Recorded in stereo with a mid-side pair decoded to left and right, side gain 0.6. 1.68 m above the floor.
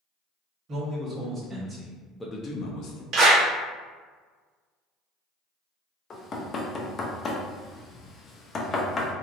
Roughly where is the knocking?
Ahead left.